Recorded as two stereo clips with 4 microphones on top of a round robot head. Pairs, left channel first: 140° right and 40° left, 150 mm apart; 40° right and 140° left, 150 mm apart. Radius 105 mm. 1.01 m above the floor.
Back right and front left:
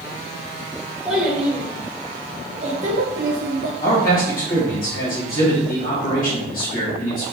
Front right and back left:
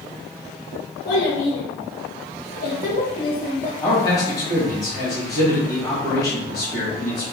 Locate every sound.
1.1 s a child speaking: 50° right, 2 m; by 3.7 s 45° left, 1.0 m
3.8 s a man speaking: 100° right, 1.6 m